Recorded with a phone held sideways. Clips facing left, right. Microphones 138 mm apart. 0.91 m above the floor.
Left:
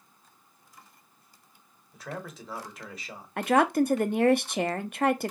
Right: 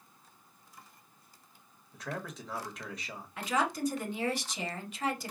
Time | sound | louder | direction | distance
1.9 | a man speaking | left 1 dB | 5° left (ahead or behind) | 1.5 m
3.4 | a woman speaking | left 9 dB | 60° left (ahead or behind) | 0.6 m